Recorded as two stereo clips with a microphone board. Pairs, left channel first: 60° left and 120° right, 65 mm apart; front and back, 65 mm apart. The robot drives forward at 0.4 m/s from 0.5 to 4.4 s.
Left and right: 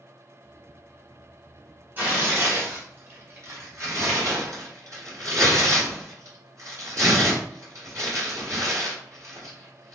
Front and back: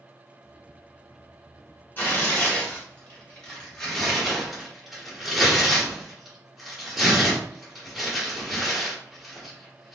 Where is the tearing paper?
60° right, 1.9 m; by 9.9 s 90° right, 1.6 m.